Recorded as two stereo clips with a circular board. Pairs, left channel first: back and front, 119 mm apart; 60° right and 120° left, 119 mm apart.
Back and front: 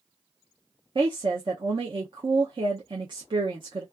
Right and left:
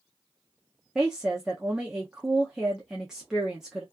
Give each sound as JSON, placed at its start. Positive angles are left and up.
{"t": 0.9, "sound": "a woman speaking", "azimuth_deg": 35, "distance_m": 0.6}